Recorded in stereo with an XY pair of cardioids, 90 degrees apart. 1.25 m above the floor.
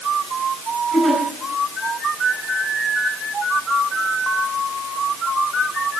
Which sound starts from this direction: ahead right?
A giggle, at 0.9 s.